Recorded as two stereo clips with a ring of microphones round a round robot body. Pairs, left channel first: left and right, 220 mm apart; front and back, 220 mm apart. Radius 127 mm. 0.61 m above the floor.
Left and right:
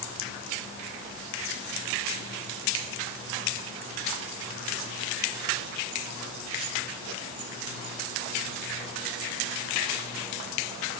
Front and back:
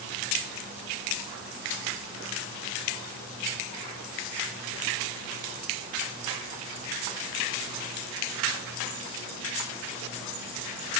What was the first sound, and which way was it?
Only background noise.